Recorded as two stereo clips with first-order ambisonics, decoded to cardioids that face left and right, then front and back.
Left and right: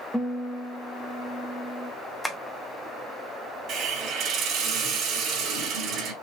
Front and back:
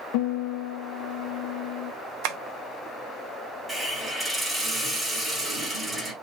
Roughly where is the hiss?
Right.